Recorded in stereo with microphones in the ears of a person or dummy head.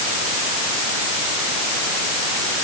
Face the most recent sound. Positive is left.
No sound to turn to.